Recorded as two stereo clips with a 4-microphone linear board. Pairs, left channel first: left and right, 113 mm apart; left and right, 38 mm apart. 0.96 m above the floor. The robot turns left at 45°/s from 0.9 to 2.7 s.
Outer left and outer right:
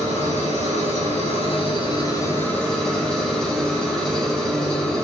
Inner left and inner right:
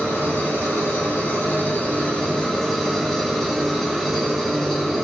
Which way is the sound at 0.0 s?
85° left.